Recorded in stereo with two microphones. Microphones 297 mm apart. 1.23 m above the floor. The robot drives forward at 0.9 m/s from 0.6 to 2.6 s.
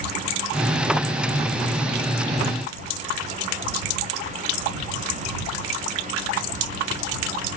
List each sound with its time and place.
Only background noise.